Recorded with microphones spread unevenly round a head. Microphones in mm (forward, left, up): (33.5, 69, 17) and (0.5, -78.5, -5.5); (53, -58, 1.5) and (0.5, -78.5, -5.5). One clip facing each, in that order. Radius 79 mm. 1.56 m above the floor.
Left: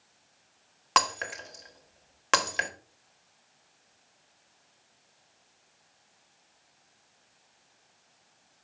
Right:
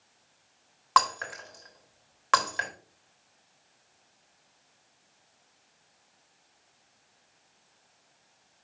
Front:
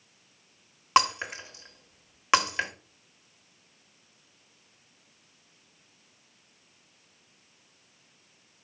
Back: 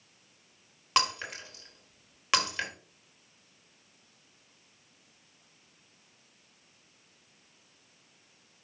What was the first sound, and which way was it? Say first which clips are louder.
Breaking glass: right 2 dB, front 6 dB; 60° left.